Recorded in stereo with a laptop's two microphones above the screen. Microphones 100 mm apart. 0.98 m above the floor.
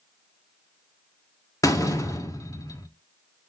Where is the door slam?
35° left (ahead or behind), 1.5 m.